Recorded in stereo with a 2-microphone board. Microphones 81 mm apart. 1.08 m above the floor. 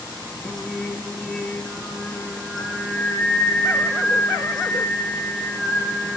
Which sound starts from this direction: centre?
Singing, at 0.4 s.